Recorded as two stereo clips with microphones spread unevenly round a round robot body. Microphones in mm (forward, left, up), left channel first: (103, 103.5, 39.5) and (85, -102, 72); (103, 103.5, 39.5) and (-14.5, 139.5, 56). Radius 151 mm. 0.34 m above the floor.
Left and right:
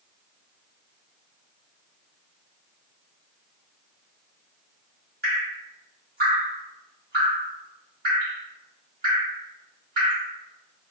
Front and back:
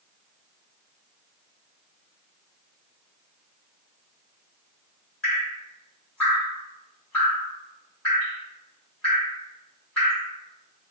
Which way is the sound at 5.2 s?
85° right.